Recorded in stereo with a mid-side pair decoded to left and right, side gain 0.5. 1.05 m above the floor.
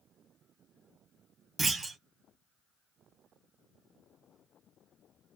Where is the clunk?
35° right, 1.3 m.